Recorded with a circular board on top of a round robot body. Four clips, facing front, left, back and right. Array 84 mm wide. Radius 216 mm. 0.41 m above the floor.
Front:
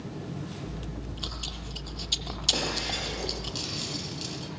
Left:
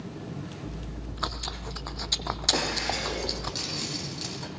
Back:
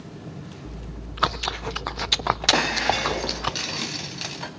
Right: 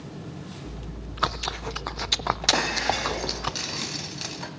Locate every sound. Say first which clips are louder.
0.7 s chewing: even, even; 155° right, 0.6 m
2.5 s breaking glass: right 4 dB, back 10 dB; 160° right, 2.0 m